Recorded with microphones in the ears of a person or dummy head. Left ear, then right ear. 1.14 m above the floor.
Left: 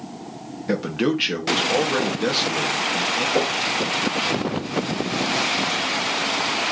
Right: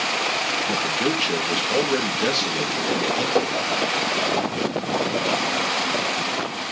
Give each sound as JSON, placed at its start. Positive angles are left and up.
{"t": 0.7, "sound": "a man speaking", "side_deg": -5, "distance_m": 1.8}
{"t": 3.4, "sound": "knocking", "side_deg": -25, "distance_m": 3.5}